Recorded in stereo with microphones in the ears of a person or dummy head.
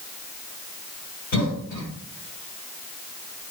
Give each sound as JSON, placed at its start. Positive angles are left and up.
{"t": 1.3, "sound": "a cough", "side_deg": 75, "distance_m": 5.0}